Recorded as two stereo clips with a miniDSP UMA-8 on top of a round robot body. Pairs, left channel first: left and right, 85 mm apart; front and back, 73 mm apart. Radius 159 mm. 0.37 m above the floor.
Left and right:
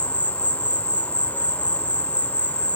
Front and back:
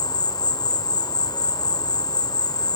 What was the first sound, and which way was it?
An insect, 15° left.